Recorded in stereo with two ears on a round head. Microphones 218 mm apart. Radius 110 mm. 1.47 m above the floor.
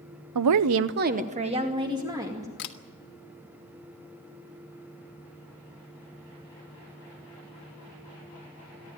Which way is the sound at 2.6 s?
50° left (ahead or behind).